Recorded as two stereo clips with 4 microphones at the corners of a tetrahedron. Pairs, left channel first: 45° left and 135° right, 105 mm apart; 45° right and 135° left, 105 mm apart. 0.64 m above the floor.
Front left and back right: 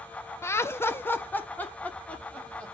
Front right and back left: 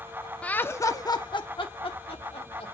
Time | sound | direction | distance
0.4 | laughter | 20° left | 0.6 m